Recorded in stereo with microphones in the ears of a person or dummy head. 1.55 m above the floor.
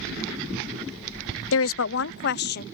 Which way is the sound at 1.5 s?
70° left (ahead or behind).